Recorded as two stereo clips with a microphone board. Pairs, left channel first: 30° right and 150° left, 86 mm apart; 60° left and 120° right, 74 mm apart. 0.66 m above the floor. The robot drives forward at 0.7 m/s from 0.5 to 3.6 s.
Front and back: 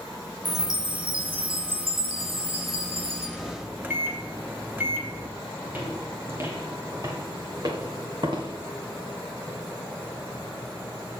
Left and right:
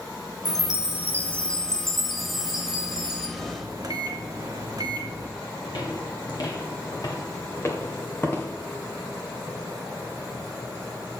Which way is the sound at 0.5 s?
105° left.